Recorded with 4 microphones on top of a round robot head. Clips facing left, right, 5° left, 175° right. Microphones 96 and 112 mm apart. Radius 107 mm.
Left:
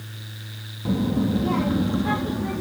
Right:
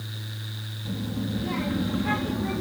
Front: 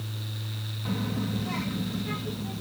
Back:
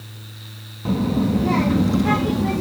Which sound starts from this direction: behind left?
A child speaking, at 0.8 s.